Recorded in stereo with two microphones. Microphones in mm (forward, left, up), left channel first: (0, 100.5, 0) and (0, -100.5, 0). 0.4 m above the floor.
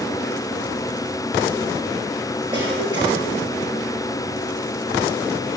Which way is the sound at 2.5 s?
25° right (ahead or behind).